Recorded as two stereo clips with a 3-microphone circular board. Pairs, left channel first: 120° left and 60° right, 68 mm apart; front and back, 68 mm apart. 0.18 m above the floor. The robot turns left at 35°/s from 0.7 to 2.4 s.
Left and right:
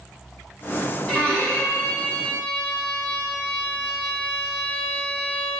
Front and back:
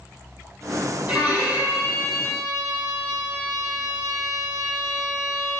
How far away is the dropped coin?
I don't hear a dropped coin.